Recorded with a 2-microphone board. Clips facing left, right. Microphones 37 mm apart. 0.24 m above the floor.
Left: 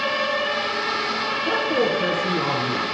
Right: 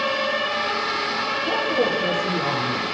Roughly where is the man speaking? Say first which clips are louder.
Left 1 dB; left.